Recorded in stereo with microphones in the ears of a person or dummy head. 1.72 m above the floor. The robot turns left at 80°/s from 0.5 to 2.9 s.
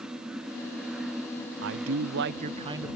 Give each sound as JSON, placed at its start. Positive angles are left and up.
{"t": 1.6, "sound": "a man speaking", "azimuth_deg": -65}